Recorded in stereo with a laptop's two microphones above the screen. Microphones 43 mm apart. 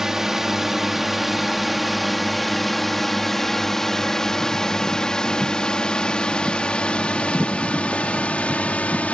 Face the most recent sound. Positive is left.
turn(degrees=35)  # may be behind; listen again after turning